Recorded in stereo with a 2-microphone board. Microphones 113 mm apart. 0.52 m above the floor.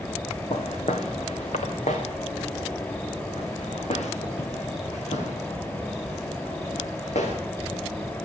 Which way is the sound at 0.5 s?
70° left (ahead or behind).